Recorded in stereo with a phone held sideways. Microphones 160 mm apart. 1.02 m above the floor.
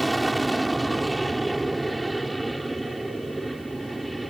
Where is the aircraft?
Centre (ahead or behind).